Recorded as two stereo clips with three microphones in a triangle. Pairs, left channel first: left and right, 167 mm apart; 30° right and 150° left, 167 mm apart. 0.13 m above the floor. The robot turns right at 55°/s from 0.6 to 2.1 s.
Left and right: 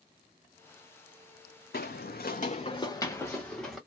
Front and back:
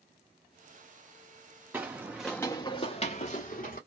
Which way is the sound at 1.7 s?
75° left.